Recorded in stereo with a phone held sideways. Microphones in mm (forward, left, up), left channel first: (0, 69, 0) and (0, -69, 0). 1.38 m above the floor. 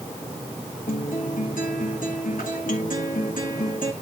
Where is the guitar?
85° left, 3 m.